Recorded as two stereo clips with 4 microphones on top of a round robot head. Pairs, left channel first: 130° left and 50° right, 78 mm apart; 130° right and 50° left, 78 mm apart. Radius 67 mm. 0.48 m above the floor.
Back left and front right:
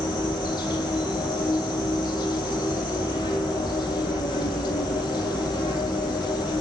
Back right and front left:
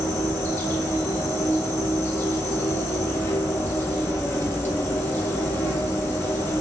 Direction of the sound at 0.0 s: 165° left.